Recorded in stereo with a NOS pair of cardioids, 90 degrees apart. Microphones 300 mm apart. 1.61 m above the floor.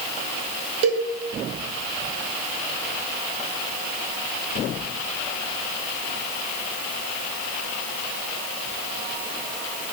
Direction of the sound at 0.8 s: 55° right.